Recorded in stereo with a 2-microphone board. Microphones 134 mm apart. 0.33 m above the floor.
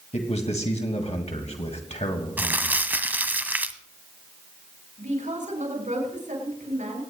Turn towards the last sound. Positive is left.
turn(degrees=-65)  # may be behind; listen again after turning